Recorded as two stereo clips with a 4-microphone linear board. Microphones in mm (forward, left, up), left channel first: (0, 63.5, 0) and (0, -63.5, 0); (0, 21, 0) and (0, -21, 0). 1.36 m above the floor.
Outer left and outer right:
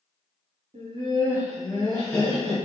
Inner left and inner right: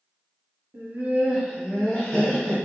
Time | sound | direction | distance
0.7 | laughter | 55° right (ahead or behind) | 0.6 m